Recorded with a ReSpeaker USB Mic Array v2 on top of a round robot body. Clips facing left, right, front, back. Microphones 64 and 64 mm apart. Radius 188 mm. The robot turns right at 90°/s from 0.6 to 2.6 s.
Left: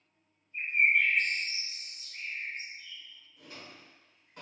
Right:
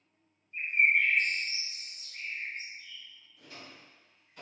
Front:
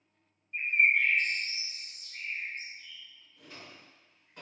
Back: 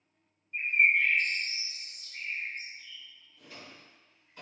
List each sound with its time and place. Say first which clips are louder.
0.5 s a bird: even, back 1 dB; 70° right, 0.9 m; by 3.0 s 110° left, 0.9 m
3.4 s a drawer: left 1 dB, even; 45° left, 1.0 m